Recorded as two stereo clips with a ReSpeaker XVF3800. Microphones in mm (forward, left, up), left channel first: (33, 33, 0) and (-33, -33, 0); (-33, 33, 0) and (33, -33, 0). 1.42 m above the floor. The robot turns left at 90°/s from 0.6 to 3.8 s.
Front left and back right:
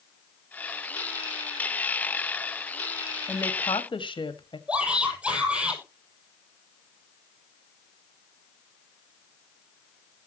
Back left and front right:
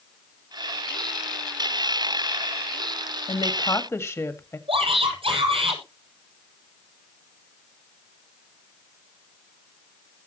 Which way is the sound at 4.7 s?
55° right.